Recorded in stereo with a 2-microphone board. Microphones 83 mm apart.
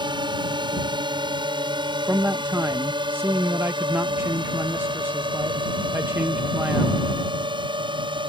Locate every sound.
0.0 s a drone: 65° right (ahead or behind); by 8.3 s 75° right (ahead or behind)
2.1 s a man speaking: 30° right (ahead or behind)